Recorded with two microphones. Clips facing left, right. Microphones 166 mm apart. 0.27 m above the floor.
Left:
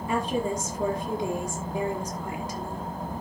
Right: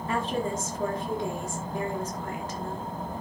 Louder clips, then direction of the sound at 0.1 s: Left 2 dB; 15° left (ahead or behind).